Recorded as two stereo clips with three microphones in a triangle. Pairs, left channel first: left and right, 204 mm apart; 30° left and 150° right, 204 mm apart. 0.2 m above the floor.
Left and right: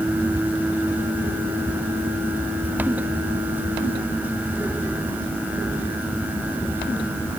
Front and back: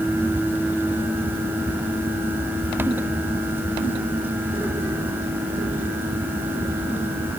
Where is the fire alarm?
I don't hear a fire alarm.